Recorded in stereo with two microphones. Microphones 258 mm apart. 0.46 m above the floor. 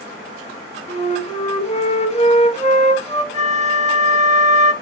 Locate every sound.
0.9 s a flute: 30° left (ahead or behind), 2.0 m
3.3 s a flute: 30° right (ahead or behind), 0.6 m